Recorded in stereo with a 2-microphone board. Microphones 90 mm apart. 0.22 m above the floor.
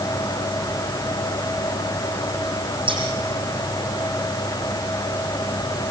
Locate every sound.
2.9 s scissors: 70° right (ahead or behind), 8.5 m